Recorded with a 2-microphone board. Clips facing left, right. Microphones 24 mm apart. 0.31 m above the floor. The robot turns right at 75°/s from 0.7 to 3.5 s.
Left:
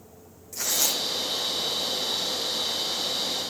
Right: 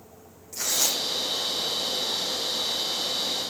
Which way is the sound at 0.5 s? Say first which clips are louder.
Even; 5° right (ahead or behind).